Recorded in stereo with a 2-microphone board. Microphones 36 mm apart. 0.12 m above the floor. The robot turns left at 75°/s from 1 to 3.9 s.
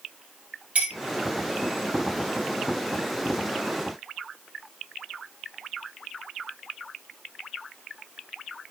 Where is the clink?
45° right (ahead or behind), 1.6 m.